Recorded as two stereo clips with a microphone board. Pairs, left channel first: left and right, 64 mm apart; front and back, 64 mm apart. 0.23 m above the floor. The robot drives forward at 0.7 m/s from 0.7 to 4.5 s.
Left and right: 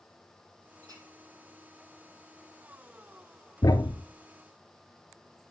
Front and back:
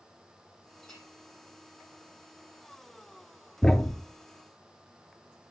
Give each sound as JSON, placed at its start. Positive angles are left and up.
{"t": 0.8, "sound": "a clink", "azimuth_deg": -80, "distance_m": 5.5}
{"t": 3.6, "sound": "a thud", "azimuth_deg": 80, "distance_m": 1.0}